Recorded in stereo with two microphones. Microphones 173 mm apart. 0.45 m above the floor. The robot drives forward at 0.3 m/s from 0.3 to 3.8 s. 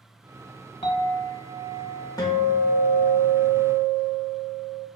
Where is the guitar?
20° left (ahead or behind), 1.0 m; by 4.9 s 15° left (ahead or behind), 1.4 m.